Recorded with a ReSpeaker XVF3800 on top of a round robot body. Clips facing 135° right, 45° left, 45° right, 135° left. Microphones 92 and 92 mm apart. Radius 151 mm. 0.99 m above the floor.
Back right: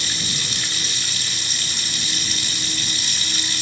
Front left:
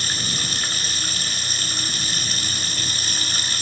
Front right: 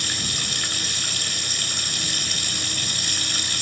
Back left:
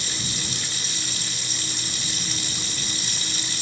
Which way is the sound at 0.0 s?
5° right.